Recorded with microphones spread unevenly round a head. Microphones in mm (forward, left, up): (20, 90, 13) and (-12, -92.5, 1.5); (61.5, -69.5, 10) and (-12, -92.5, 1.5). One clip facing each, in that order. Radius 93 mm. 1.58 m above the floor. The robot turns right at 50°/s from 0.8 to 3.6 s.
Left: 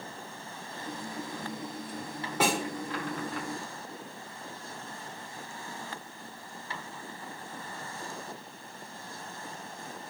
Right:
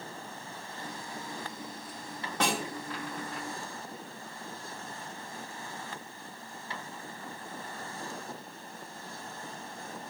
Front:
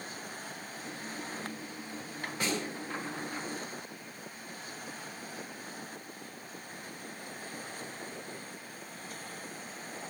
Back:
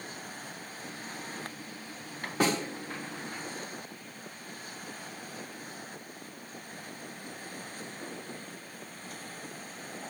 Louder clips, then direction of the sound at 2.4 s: Left 3 dB, back 7 dB; 165° left.